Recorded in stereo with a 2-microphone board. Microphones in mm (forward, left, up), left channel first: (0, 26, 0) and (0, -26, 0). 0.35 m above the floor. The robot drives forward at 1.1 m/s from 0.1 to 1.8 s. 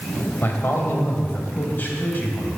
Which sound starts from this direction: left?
A man speaking, at 0.4 s.